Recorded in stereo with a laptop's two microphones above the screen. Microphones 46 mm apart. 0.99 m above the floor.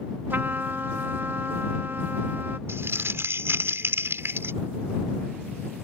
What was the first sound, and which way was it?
A trumpet, 50° right (ahead or behind).